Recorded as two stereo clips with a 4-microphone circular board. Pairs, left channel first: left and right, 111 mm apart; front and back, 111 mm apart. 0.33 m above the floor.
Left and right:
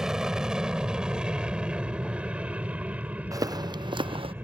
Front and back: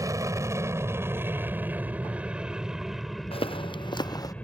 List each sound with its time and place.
0.0 s an aircraft: 170° right; by 4.4 s 50° right
3.3 s footsteps: 35° right; by 4.3 s 55° right